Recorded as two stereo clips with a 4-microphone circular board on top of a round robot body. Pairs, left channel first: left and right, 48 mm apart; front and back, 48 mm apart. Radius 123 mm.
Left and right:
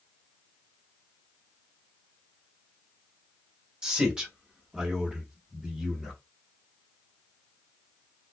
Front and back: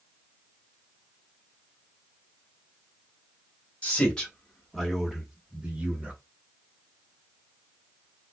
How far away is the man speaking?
About 1.5 m.